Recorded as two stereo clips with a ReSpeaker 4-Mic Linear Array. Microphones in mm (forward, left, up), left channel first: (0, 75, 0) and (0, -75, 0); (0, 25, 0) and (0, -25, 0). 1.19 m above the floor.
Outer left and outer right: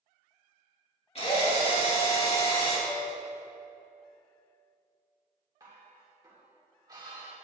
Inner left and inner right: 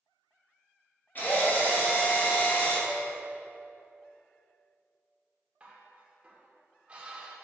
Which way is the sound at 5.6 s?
25° right (ahead or behind).